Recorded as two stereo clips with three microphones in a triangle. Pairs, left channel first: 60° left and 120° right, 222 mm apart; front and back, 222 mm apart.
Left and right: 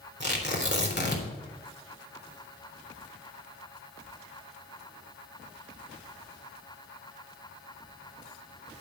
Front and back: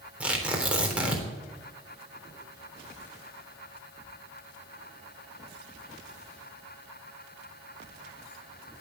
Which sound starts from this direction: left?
Tearing paper, at 0.2 s.